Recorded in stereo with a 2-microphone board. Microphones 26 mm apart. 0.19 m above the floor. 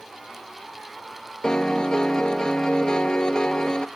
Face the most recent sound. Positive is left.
turn(degrees=30)  # may be behind; listen again after turning